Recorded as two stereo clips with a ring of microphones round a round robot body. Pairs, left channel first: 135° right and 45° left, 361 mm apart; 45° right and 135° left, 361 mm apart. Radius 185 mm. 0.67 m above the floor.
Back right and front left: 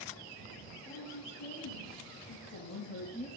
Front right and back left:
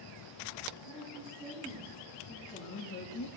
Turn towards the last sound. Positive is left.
turn(degrees=-60)